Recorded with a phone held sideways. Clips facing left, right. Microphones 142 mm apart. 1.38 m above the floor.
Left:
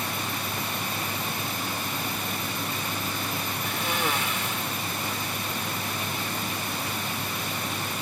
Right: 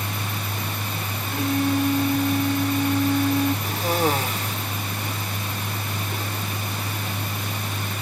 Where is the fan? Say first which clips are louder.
Right 1 dB; 60° right (ahead or behind).